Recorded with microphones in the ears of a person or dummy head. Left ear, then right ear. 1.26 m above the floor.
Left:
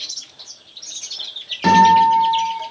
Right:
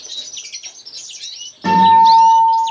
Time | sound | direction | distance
1.6 | a guitar | 35° left (ahead or behind) | 1.3 m